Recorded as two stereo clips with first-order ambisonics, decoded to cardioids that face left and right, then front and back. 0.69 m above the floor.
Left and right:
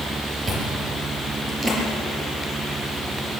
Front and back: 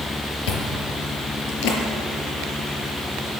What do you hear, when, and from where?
0.5 s chewing: 15° right, 4 m